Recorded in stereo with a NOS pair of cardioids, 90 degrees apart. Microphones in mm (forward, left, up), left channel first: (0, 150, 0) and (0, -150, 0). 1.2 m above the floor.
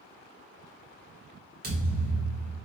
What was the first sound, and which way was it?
A thud, 30° right.